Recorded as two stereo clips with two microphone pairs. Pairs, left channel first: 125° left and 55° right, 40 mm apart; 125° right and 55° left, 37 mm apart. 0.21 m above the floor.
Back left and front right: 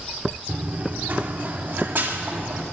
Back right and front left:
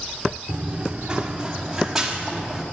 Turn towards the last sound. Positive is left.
turn(degrees=-30)